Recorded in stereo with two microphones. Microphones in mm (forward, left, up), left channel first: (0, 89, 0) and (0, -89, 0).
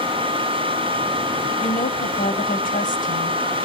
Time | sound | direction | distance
1.6 | a woman speaking | 50° left (ahead or behind) | 2.5 m